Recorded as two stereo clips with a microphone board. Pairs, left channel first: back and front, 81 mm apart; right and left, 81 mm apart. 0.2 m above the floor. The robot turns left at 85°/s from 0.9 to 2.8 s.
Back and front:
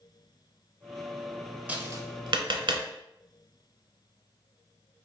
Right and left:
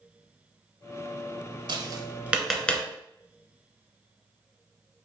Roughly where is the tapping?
Left.